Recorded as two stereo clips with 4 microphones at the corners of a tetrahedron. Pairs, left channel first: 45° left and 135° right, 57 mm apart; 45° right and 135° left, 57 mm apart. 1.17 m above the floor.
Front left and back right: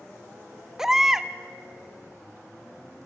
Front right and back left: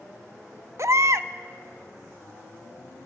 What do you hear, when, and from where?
0.8 s a baby crying: 145° left, 0.7 m